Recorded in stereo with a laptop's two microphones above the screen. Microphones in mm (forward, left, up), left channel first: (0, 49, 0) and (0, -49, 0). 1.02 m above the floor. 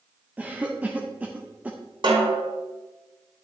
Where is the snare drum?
55° right (ahead or behind), 3 m.